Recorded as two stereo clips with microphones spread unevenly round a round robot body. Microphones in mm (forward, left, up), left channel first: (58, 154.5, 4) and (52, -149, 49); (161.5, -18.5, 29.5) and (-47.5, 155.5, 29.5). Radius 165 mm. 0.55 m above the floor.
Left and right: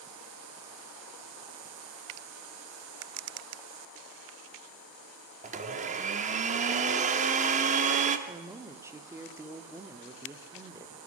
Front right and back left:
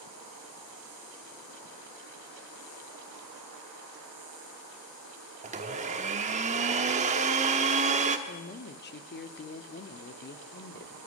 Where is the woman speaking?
5° right, 1.1 m.